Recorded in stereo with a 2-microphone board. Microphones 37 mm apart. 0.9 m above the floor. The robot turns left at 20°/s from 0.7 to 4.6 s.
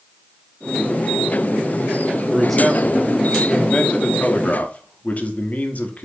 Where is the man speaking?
Straight behind, 1.1 m; by 6.0 s 135° left, 1.1 m.